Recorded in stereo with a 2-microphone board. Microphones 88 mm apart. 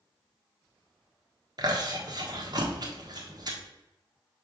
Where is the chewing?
50° right (ahead or behind), 1.2 m.